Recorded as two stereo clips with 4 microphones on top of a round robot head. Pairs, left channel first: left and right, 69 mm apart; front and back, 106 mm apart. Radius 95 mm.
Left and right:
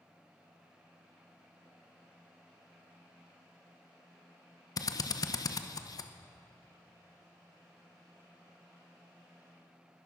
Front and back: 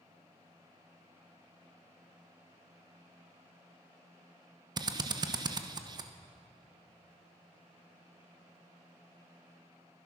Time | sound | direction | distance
4.8 | a drill | 125° left | 0.9 m